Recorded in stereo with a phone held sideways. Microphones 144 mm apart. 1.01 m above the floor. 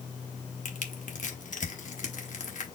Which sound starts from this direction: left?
Crushing, at 0.7 s.